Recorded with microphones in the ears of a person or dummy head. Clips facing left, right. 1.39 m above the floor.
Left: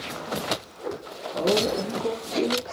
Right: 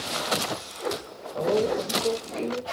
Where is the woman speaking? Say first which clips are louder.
Even; 80° left, 3.5 m.